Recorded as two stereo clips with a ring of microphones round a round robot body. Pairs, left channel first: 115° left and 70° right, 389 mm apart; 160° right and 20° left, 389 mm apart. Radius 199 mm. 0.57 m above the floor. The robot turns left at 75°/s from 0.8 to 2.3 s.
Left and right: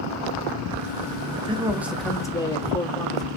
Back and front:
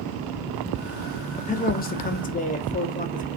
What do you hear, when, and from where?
1.4 s a man speaking: 115° right, 0.6 m; by 3.3 s 175° left, 0.6 m